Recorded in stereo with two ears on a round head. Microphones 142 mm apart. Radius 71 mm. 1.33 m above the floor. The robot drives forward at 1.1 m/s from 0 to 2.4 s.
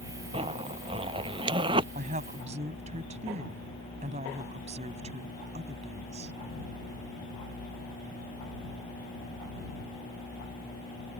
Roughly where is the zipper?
Right.